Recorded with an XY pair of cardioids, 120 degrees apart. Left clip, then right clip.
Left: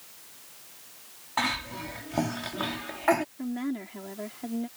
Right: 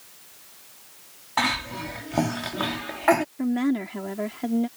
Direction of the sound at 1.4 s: 25° right.